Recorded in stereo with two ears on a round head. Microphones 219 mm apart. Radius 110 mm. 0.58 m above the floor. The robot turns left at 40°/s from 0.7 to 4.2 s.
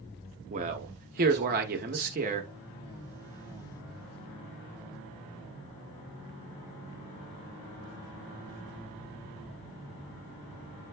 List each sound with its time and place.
0.5 s a man speaking: 55° right, 0.9 m; by 2.5 s 125° right, 0.9 m